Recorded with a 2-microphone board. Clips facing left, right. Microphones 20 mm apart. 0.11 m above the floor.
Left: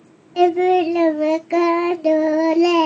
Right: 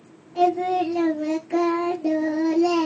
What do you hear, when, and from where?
0.4 s singing: 45° left (ahead or behind), 0.5 m